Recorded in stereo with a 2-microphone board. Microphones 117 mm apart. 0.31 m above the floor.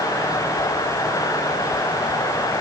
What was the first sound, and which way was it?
Only background noise.